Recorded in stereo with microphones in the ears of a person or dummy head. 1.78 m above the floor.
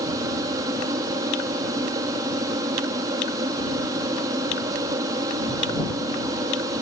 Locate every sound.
0.0 s an aircraft: 20° right (ahead or behind)